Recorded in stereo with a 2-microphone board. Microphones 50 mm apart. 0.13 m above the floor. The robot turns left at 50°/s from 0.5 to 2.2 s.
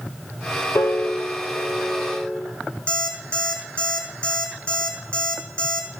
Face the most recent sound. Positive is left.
turn(degrees=30)  # may be behind; listen again after turning